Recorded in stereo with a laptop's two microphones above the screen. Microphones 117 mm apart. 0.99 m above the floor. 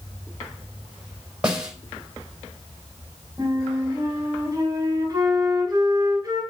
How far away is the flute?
About 3.5 m.